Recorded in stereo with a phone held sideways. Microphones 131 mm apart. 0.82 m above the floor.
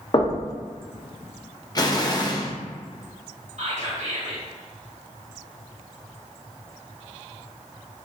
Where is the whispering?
55° right (ahead or behind), 1.4 m.